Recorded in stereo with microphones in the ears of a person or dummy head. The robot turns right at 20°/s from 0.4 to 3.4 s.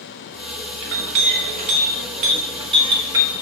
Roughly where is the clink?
Right.